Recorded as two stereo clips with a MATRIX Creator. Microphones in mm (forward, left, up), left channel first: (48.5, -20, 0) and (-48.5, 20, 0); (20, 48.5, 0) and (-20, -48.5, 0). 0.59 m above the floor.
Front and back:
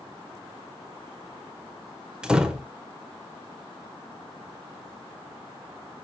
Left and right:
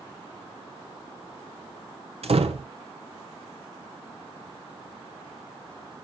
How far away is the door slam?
About 1.4 m.